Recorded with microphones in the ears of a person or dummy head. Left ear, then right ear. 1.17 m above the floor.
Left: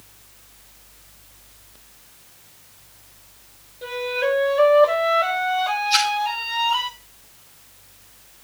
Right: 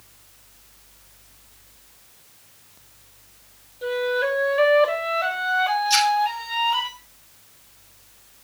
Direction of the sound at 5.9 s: 50° right (ahead or behind).